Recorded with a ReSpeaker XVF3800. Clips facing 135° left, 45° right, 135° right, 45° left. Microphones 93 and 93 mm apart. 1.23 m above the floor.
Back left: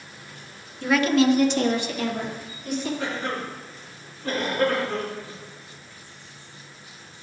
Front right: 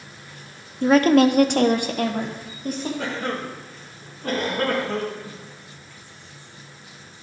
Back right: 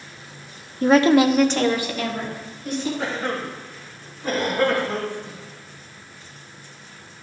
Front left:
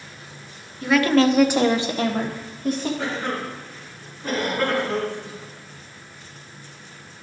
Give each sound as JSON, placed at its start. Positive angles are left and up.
{"t": 0.8, "sound": "a woman speaking", "azimuth_deg": -100, "distance_m": 0.5}
{"t": 3.0, "sound": "a cough", "azimuth_deg": -50, "distance_m": 1.6}